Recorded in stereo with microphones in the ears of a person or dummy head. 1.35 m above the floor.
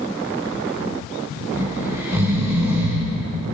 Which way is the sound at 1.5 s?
10° right (ahead or behind).